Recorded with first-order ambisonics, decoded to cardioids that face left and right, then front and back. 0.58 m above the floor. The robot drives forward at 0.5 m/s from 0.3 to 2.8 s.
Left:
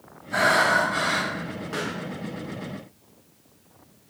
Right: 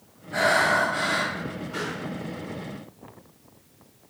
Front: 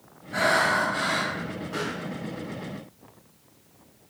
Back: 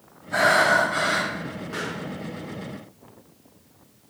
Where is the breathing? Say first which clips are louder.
Left 1 dB, back 4 dB; 140° left, 1.7 m; by 1.3 s 150° left, 2 m.